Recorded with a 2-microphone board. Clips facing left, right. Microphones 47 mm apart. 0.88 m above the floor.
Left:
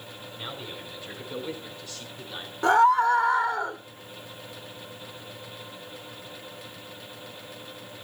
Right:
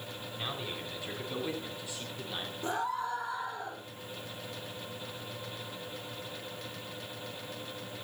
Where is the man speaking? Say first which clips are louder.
Even; 15° right (ahead or behind), 9 m; by 2.5 s 10° right (ahead or behind), 8 m.